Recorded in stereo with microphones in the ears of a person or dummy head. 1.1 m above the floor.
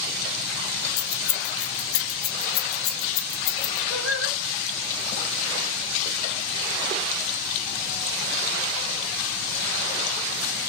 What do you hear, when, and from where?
1.0 s keys jangling: 80° left, 3.5 m; by 3.8 s 55° left (ahead or behind), 2 m
3.9 s singing: 65° right (ahead or behind), 1.0 m